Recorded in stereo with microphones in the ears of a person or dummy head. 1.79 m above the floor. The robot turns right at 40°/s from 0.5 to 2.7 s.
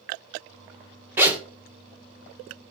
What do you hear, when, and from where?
1.2 s a zipper: 10° right (ahead or behind), 0.8 m